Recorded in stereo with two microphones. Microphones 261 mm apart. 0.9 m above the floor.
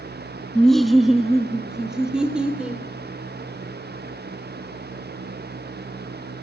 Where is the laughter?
5° left (ahead or behind), 0.7 m; by 2.8 s 5° right (ahead or behind), 3 m.